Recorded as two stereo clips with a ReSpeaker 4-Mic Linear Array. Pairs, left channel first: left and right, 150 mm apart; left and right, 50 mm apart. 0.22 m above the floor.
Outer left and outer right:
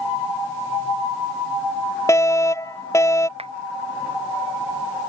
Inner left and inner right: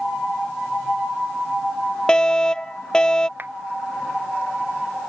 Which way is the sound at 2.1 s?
20° left (ahead or behind).